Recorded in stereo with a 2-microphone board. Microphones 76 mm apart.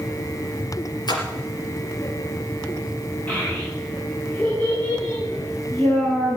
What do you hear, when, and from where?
1.1 s a splash: 65° left (ahead or behind), 3 m
3.3 s a child speaking: 15° left (ahead or behind), 10 m